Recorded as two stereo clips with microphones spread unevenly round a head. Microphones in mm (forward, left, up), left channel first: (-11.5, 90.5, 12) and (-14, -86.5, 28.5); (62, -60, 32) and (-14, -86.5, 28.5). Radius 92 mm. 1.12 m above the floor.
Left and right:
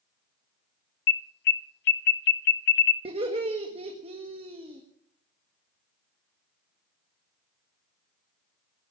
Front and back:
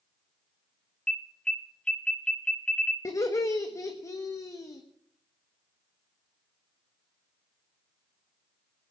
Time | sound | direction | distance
1.1 | an alarm | 100° left | 0.8 m
3.0 | laughter | 30° right | 1.6 m